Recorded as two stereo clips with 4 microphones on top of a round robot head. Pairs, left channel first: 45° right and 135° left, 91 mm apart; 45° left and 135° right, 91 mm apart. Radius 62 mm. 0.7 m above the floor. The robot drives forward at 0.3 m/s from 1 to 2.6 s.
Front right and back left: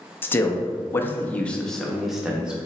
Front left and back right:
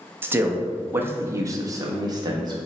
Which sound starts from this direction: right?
A man speaking, at 0.2 s.